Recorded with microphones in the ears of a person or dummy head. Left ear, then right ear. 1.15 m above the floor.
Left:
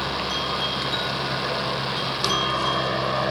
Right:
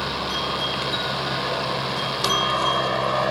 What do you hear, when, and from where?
0.0 s a helicopter: 5° left (ahead or behind); by 3.3 s 20° right (ahead or behind)